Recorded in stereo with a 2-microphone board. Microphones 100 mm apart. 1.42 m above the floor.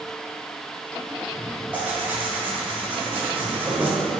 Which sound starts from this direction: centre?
Tearing paper, at 1.7 s.